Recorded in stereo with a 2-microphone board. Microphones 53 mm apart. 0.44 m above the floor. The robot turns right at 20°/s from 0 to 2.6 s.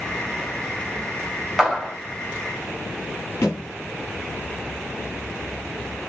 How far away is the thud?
About 3 m.